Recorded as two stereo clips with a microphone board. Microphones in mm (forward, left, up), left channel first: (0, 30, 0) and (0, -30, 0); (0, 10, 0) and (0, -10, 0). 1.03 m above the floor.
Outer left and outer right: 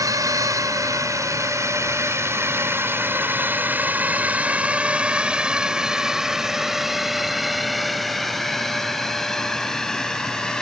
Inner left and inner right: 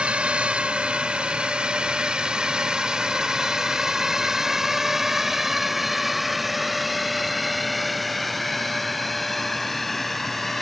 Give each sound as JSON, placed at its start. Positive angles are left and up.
{"t": 0.0, "sound": "a drone", "side_deg": -65}